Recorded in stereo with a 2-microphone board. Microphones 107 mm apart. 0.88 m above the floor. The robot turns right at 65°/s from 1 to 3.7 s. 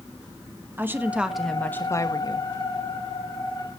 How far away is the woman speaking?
About 1.3 m.